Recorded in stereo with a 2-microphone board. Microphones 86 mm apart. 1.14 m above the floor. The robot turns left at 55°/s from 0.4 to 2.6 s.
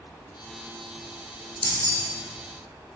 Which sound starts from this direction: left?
Keys jangling, at 1.6 s.